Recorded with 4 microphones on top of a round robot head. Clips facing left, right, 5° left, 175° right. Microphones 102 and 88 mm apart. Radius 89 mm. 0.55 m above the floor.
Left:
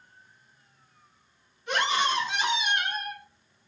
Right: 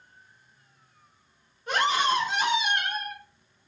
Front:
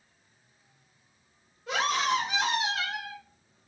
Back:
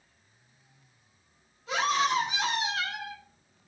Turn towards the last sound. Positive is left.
turn(degrees=-50)